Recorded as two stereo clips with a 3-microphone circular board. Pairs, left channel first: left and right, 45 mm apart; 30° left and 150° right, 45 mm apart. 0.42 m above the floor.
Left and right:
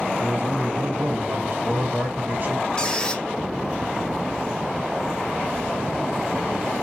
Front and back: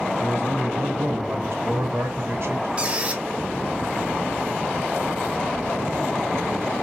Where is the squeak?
155° left, 1.3 m.